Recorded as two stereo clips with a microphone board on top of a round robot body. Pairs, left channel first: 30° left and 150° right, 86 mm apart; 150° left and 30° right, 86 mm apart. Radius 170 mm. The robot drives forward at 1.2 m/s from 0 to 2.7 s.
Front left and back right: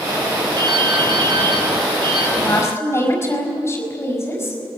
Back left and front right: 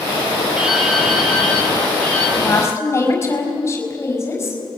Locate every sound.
0.6 s dripping: 110° right, 3.5 m; by 2.3 s 135° right, 4.5 m
2.4 s a woman speaking: 85° left, 5 m; by 4.6 s 90° left, 5 m